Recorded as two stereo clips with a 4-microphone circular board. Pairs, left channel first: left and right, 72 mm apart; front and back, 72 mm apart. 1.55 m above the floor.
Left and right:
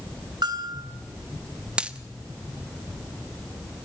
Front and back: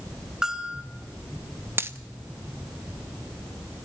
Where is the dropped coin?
155° right, 1.0 m.